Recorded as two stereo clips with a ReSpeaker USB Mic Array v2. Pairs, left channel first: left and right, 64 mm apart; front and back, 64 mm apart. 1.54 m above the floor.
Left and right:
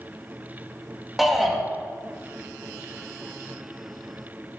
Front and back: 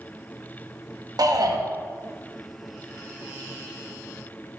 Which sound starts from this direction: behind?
A shout, at 1.2 s.